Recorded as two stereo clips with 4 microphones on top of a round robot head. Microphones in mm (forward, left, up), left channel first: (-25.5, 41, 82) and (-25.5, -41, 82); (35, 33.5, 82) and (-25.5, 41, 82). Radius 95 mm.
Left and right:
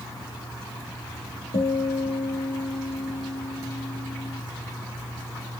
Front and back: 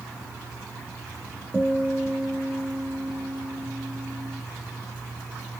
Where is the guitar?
80° left, 3 m.